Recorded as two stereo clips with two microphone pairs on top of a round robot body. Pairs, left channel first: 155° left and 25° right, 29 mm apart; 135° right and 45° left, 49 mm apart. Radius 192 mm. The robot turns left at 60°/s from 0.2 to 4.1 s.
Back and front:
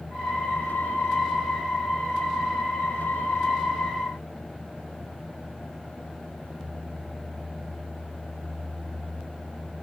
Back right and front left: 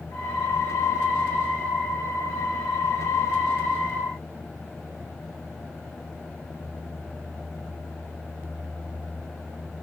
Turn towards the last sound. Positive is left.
No sound to turn to.